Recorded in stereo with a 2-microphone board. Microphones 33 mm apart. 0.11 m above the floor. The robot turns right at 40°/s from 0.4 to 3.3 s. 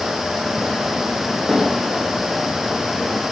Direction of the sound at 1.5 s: 20° right (ahead or behind).